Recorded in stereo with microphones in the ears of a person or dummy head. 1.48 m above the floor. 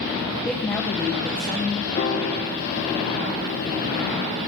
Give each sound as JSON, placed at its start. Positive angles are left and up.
{"t": 0.4, "sound": "a woman speaking", "side_deg": 5, "distance_m": 1.2}
{"t": 2.0, "sound": "a piano", "side_deg": 35, "distance_m": 0.9}